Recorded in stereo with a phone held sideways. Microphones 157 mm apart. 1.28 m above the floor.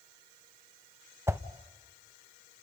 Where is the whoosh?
15° right (ahead or behind), 0.9 m.